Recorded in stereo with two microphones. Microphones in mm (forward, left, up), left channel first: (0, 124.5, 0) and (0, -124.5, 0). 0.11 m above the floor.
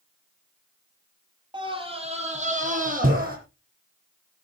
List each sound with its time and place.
1.5 s a scream: 20° right (ahead or behind), 3 m; by 3.4 s 35° right (ahead or behind), 4 m